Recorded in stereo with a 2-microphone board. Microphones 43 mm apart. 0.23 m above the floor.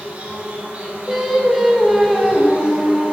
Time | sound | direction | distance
0.0 | an insect | 35° right (ahead or behind) | 1.9 m
1.1 | singing | 10° right (ahead or behind) | 1.6 m